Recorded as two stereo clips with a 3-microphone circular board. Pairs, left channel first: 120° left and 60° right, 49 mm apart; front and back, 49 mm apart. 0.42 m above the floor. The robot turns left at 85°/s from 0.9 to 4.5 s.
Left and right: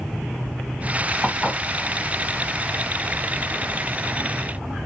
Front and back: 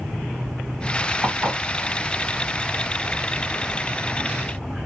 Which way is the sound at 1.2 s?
140° right.